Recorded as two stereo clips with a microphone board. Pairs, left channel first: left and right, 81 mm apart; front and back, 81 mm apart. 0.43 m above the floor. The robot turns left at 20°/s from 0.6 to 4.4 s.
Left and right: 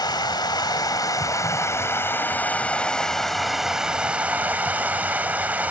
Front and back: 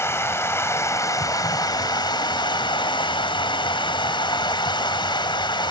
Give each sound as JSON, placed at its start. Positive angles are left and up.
{"t": 0.0, "sound": "running water", "azimuth_deg": 55, "distance_m": 1.0}